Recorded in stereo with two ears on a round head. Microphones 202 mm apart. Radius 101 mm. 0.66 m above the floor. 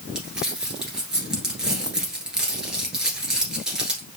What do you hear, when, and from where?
0.1 s crumpling: 5° right (ahead or behind), 1.7 m